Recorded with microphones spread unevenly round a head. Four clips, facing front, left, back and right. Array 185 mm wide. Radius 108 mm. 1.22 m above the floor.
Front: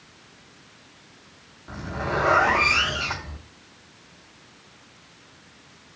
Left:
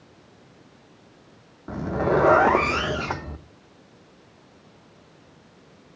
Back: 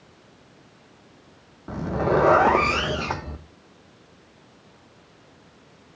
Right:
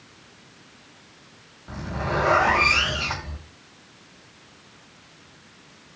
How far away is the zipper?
About 0.6 m.